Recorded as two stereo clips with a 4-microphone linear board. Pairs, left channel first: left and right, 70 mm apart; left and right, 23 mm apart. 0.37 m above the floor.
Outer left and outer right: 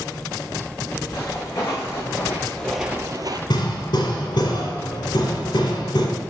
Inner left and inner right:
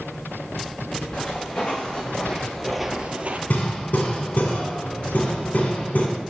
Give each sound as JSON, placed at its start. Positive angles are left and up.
{"t": 1.1, "sound": "footsteps", "side_deg": 40, "distance_m": 2.5}
{"t": 3.5, "sound": "hammering", "side_deg": 80, "distance_m": 1.4}